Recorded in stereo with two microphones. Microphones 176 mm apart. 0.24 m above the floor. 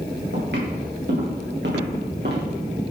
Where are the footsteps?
80° right, 3 m; by 2.5 s 70° right (ahead or behind), 3 m.